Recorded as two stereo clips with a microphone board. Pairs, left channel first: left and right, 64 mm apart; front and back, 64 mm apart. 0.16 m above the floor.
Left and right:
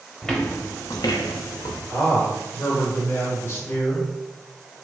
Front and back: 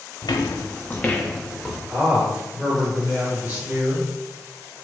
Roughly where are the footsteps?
Ahead.